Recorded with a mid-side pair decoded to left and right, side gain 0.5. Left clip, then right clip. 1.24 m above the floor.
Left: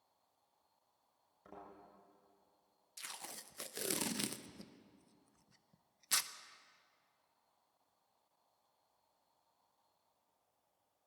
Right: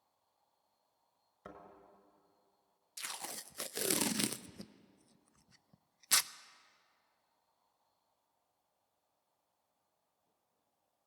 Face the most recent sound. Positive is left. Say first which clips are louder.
# right 5 dB
turn(degrees=-35)